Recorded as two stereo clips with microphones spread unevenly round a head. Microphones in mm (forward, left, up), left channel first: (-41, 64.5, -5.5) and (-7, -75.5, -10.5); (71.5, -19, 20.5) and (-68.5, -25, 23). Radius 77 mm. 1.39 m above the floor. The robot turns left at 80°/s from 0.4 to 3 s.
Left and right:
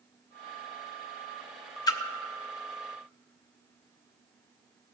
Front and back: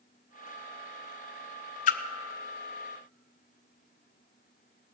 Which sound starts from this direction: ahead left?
A splash, at 1.9 s.